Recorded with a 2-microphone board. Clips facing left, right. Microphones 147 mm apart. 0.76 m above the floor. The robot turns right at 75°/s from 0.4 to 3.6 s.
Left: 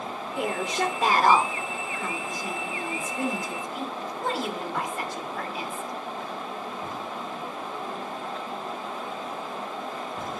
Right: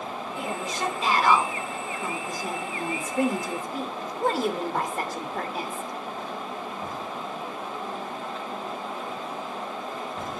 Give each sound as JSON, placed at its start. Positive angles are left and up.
{"t": 0.4, "sound": "a woman speaking", "azimuth_deg": 75, "distance_m": 2.5}